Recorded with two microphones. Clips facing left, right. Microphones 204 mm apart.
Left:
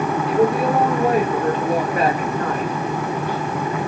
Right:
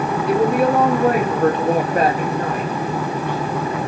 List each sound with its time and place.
0.3 s a woman speaking: 80° right, 1.1 m; by 3.8 s 25° left (ahead or behind), 1.2 m